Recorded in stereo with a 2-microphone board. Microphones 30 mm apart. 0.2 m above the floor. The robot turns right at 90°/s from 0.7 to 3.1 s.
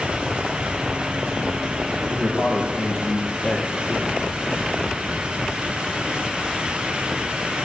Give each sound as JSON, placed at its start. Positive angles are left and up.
{"t": 2.1, "sound": "a man speaking", "azimuth_deg": -70, "distance_m": 6.0}